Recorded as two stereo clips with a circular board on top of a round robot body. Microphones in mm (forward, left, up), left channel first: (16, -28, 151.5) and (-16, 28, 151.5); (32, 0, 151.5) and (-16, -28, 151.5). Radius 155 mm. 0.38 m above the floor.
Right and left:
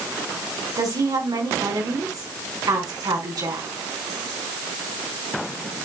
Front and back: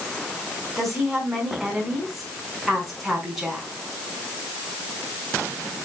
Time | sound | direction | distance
0.8 | a woman speaking | 125° left | 4.5 m